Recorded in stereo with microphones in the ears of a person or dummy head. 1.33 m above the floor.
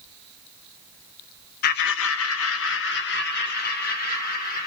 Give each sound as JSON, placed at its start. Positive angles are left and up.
{"t": 1.6, "sound": "laughter", "side_deg": 55, "distance_m": 0.5}